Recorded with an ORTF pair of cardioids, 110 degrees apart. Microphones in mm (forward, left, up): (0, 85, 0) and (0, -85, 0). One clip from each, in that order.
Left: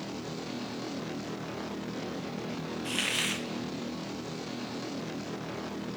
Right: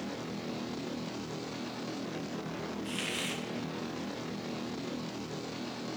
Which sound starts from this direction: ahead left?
A hiss, at 2.9 s.